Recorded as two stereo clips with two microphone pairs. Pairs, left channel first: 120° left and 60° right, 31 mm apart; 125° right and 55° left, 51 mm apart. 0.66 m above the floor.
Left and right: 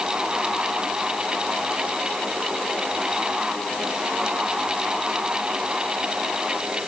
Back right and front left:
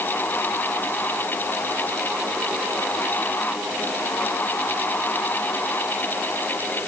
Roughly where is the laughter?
I don't hear laughter.